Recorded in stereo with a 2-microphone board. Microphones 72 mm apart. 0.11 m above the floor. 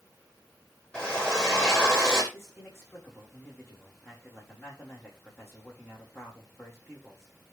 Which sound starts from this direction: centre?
A drill, at 0.9 s.